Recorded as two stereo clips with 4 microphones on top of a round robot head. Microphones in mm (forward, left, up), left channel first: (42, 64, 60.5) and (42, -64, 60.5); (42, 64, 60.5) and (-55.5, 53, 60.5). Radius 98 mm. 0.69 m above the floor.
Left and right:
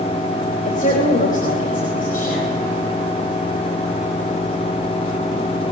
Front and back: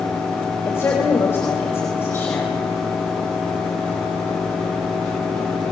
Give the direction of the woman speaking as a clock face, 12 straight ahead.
10 o'clock.